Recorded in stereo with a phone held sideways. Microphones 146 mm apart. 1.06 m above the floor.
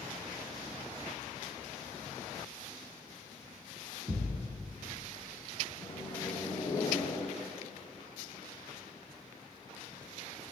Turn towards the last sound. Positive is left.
turn(degrees=30)  # may be behind; listen again after turning